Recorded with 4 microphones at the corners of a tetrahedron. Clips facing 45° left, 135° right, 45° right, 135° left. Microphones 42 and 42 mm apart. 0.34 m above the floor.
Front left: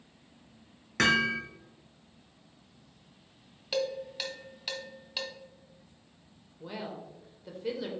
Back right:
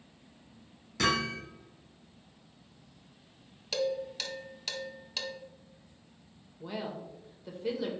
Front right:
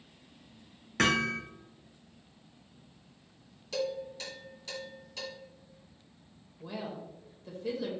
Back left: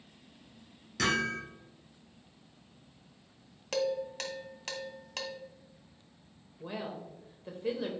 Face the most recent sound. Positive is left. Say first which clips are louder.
# back right 2 dB, even
turn(degrees=135)